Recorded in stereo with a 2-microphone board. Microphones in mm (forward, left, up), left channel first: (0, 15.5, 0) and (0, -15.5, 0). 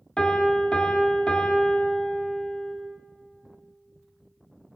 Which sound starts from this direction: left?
A piano, at 0.2 s.